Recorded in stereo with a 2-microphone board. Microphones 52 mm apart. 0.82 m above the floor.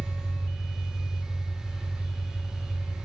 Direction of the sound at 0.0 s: 50° left (ahead or behind).